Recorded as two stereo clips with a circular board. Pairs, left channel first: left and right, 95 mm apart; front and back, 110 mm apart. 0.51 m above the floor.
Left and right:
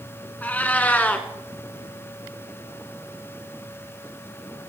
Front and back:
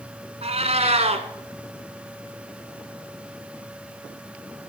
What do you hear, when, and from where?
0.4 s a cat meowing: 165° left, 1.5 m